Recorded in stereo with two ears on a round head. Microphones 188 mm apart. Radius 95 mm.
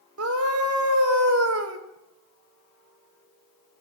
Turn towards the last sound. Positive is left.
turn(degrees=-80)